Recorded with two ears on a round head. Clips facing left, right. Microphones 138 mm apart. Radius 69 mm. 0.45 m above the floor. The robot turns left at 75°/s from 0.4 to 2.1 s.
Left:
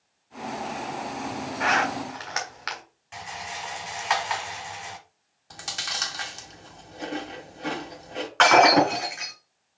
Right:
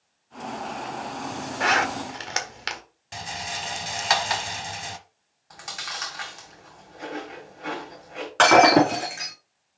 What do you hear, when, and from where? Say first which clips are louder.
1.6 s a zipper: right 1 dB; 40° right (ahead or behind), 1.5 m; by 2.8 s 35° right (ahead or behind), 1.5 m
3.1 s a rattle: right 2 dB; 45° right (ahead or behind), 1.0 m
5.5 s chewing: left 1 dB; 35° left (ahead or behind), 2.0 m
8.4 s breaking glass: right 2 dB; 40° right (ahead or behind), 4 m